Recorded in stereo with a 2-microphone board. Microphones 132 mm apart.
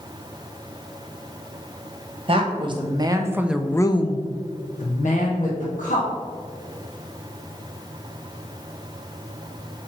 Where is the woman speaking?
40° right (ahead or behind), 1.4 m; by 6.1 s 70° left (ahead or behind), 1.9 m.